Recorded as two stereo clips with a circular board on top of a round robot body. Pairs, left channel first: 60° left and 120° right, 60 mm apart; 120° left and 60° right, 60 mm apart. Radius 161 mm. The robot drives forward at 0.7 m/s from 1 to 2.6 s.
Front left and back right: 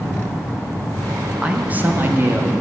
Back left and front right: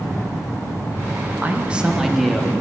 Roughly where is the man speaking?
Right.